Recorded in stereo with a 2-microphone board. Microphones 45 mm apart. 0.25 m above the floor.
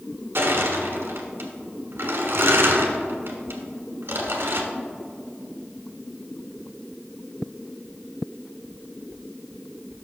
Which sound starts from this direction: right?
Crushing, at 0.3 s.